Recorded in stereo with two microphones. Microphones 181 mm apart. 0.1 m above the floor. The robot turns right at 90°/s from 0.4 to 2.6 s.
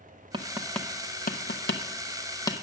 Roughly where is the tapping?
Right.